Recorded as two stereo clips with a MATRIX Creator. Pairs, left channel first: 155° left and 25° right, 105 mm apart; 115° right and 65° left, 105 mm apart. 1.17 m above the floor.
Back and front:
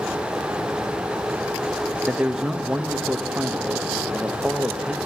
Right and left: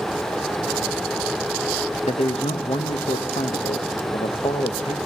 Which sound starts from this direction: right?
A man speaking, at 2.0 s.